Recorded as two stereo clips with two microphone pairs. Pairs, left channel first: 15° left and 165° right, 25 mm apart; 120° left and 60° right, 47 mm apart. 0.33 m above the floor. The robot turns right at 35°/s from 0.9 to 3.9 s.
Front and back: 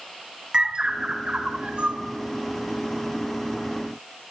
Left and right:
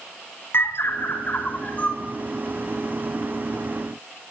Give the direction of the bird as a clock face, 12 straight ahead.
7 o'clock.